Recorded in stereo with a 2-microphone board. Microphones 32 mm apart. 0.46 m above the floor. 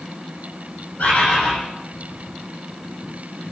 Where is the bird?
55° left (ahead or behind), 8.5 m.